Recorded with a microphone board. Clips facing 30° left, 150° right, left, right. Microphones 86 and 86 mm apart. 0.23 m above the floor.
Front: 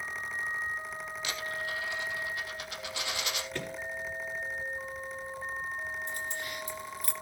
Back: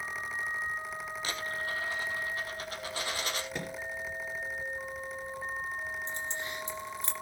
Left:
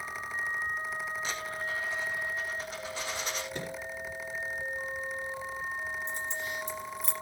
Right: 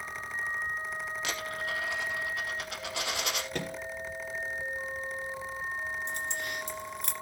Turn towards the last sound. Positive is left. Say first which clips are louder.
# even, even
turn(degrees=-85)